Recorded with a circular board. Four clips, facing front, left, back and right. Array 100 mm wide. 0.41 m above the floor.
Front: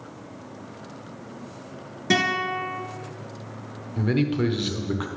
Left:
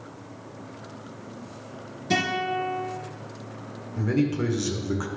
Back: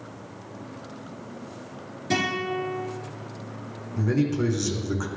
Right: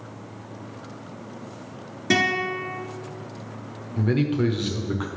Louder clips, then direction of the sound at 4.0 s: Right 2 dB, front 1 dB; 25° right.